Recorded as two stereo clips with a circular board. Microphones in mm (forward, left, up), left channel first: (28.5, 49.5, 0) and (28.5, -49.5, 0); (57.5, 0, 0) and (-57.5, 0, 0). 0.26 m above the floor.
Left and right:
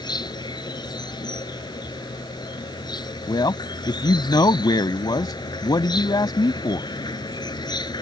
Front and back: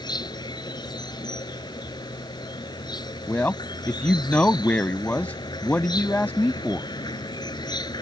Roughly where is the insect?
Ahead left.